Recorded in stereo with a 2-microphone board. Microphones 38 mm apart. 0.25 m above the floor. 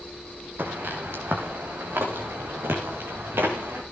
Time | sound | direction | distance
0.6 | footsteps | 70° right (ahead or behind) | 4.5 m